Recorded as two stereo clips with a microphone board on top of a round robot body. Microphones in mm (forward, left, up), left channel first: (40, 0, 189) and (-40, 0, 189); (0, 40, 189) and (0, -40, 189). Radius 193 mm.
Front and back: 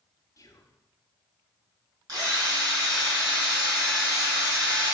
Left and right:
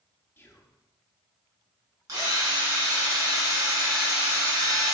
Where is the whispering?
35° left, 1.4 m.